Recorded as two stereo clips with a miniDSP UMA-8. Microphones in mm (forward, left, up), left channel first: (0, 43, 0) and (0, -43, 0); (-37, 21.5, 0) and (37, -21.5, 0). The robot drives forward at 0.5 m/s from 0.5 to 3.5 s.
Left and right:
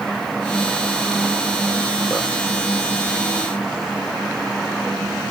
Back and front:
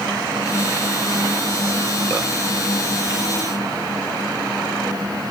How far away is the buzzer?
No buzzer in this recording.